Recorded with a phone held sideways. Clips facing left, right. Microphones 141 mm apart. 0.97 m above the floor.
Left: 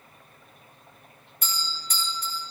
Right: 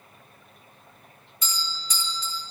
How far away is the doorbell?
About 2.5 m.